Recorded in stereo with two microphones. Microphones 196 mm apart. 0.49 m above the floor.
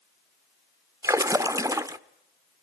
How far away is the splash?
About 0.5 m.